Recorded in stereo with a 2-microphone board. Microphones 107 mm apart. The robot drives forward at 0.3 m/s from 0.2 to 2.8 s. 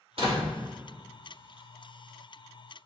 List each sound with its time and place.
0.2 s a door slam: 65° right (ahead or behind), 1.6 m